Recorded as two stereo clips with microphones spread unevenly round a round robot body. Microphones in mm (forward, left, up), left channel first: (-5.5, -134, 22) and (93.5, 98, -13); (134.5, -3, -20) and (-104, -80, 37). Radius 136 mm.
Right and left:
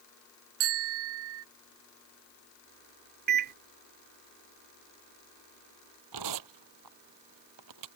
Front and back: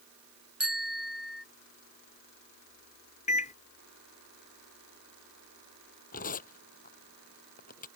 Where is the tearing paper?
80° left.